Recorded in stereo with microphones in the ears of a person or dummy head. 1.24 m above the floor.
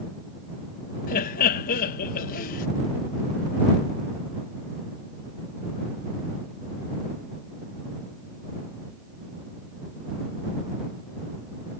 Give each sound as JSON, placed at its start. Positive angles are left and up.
{"t": 1.1, "sound": "laughter", "side_deg": 45}